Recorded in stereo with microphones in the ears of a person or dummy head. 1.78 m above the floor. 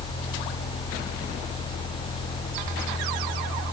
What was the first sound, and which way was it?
Only background noise.